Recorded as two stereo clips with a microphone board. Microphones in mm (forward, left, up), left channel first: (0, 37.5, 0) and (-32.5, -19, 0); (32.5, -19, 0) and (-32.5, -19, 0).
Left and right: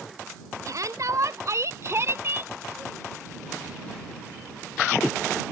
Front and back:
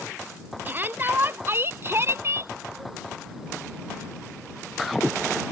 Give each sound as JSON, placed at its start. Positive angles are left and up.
{"t": 0.7, "sound": "a shout", "azimuth_deg": -125}